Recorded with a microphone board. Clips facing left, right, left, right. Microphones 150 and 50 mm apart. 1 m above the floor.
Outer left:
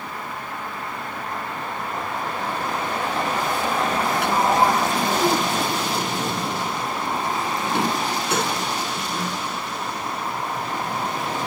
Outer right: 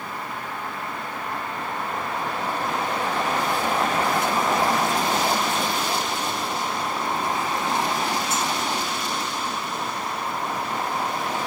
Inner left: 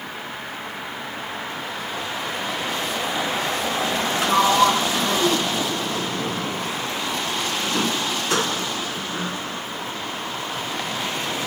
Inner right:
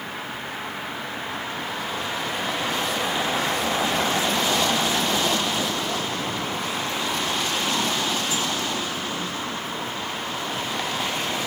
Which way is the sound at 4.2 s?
65° left (ahead or behind).